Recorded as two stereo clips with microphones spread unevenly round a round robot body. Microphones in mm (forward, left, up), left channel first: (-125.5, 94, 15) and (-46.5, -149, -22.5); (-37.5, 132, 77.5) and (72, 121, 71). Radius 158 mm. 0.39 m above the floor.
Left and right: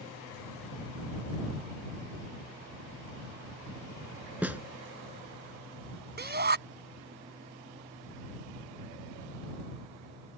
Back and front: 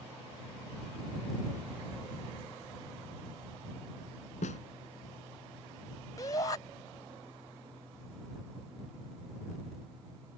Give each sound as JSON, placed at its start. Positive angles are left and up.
{"t": 4.4, "sound": "a snare drum", "azimuth_deg": -160}
{"t": 6.2, "sound": "a shout", "azimuth_deg": -120}